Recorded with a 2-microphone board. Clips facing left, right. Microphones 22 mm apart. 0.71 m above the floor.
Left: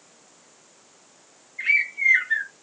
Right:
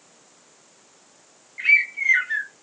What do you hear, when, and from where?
1.6 s a bird: 75° right (ahead or behind), 1.6 m